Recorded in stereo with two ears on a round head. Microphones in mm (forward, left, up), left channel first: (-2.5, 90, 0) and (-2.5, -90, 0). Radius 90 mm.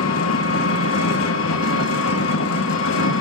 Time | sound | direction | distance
0.0 | an engine running | 75° left (ahead or behind) | 1.0 m